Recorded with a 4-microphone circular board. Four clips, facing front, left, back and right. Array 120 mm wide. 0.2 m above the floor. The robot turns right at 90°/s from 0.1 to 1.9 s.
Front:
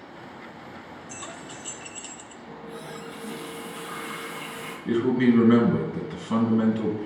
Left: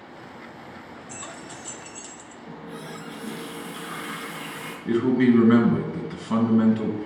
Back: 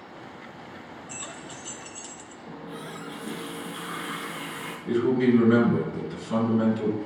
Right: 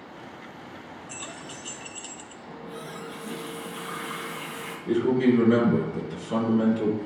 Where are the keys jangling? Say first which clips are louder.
Left 2 dB, front 2 dB; 60° left, 0.7 m; by 2.4 s 130° left, 0.7 m.